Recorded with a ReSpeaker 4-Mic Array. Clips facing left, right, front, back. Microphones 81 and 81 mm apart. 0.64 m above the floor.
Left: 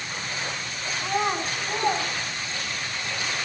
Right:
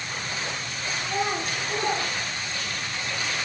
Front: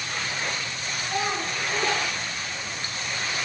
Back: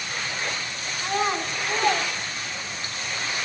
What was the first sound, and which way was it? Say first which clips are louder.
A child speaking: left 2 dB, back 3 dB; 125° left.